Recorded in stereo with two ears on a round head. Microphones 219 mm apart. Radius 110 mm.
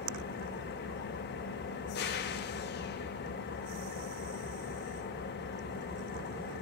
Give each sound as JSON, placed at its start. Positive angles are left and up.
{"t": 0.0, "sound": "an engine running", "side_deg": 45, "distance_m": 1.2}